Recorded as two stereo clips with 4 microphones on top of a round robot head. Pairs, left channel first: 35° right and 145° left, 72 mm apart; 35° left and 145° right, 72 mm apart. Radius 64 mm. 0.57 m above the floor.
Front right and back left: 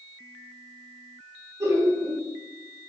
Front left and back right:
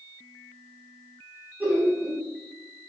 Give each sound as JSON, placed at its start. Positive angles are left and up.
{"t": 1.6, "sound": "laughter", "azimuth_deg": 160, "distance_m": 1.2}